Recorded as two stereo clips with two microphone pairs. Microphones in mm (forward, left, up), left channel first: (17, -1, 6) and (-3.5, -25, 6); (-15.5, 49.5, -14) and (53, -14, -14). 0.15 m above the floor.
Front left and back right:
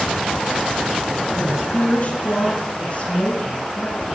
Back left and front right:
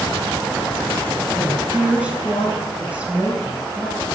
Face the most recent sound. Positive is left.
turn(degrees=30)